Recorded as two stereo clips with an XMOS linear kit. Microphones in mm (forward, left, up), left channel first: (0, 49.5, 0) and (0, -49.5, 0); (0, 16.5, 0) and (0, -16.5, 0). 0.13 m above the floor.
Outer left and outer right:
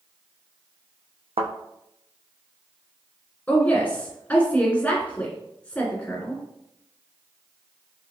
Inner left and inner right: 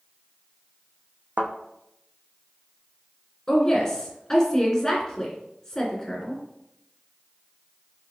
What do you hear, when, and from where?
1.4 s a thud: 85° right, 0.7 m
3.5 s a woman speaking: 10° left (ahead or behind), 1.8 m